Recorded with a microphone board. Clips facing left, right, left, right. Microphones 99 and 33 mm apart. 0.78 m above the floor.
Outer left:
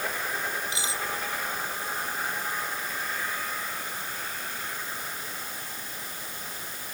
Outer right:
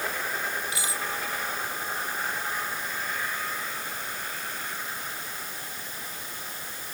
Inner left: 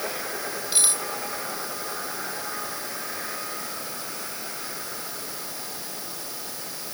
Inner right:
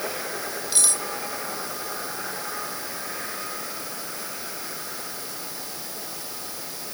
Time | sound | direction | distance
0.7 | cutlery clinking | 20° left (ahead or behind) | ?